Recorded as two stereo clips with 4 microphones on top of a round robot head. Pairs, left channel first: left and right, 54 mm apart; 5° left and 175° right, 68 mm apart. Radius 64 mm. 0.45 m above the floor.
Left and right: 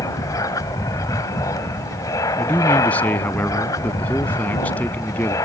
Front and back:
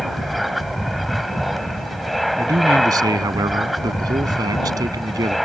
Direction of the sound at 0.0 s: 95° left.